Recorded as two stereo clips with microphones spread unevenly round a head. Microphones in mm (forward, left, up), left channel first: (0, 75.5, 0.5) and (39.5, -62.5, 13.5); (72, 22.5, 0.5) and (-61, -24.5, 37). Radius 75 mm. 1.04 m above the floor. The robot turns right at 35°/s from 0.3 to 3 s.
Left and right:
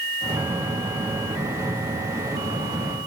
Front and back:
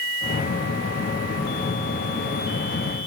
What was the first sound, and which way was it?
Only background noise.